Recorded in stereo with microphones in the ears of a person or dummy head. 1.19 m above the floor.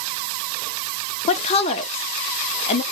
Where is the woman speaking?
35° left (ahead or behind), 0.5 m.